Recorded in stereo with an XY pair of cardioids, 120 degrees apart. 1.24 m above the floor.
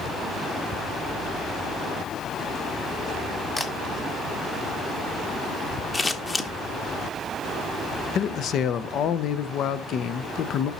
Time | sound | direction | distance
3.6 | a camera shutter | 5° left | 1.6 m
5.9 | scissors | 15° left | 1.1 m
8.2 | a man speaking | 55° left | 0.6 m